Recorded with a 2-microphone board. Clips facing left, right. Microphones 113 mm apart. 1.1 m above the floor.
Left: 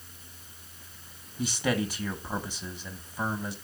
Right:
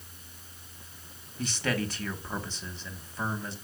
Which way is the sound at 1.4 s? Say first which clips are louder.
Left 2 dB; 15° left (ahead or behind).